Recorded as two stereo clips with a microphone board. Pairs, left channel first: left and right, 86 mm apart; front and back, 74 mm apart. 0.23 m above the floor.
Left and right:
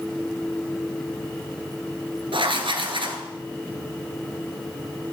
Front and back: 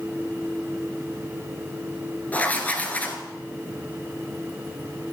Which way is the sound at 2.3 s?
70° right.